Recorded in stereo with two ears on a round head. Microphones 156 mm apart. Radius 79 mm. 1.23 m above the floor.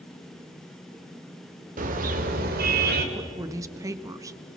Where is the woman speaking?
20° right (ahead or behind), 1.3 m.